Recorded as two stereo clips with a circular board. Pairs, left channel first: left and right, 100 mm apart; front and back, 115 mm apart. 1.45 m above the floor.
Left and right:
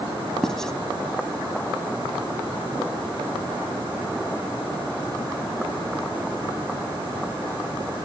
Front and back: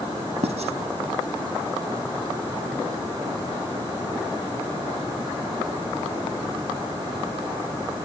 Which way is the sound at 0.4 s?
175° left.